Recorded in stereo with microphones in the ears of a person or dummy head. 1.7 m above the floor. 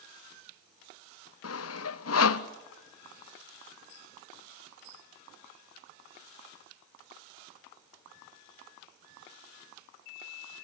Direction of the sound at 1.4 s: 85° left.